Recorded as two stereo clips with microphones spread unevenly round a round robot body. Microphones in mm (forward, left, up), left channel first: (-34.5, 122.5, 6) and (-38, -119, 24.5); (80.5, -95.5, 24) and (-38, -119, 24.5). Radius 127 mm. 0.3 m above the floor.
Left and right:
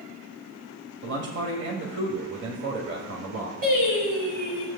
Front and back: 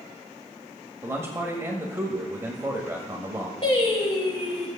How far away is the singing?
About 6 m.